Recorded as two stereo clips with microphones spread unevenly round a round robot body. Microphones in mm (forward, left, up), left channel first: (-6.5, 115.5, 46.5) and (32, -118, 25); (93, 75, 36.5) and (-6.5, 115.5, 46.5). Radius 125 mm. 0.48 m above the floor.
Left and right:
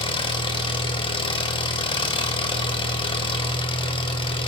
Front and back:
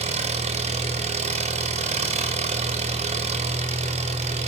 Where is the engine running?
170° left, 1.9 m.